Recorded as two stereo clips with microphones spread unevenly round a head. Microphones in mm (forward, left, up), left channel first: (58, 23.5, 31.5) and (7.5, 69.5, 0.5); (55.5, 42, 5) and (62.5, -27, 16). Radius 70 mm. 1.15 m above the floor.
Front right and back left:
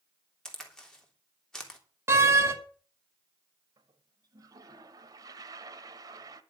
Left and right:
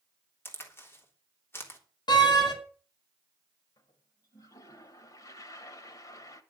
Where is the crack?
40° left, 3 m.